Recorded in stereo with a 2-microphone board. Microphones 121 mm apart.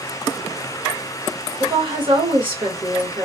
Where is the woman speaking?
45° right (ahead or behind), 1.4 m.